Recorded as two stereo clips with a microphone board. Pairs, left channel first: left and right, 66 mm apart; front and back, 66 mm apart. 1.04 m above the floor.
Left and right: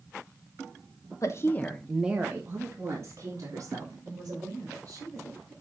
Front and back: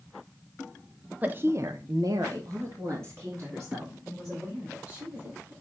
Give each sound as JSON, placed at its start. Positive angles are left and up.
{"t": 1.2, "sound": "a woman speaking", "azimuth_deg": 120, "distance_m": 1.2}